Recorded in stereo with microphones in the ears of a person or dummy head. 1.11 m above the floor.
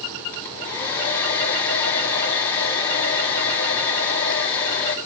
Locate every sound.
0.3 s a hair dryer: 5° left (ahead or behind), 3.5 m